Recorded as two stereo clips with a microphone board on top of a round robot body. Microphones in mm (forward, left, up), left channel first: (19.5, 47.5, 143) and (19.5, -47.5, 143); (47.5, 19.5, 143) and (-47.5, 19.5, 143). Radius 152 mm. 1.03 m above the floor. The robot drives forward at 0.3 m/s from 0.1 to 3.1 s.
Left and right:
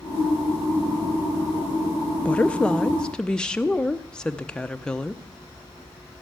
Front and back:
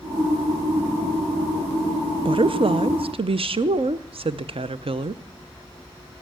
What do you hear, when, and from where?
2.2 s a woman speaking: 165° left, 0.5 m; by 5.2 s 170° left, 0.7 m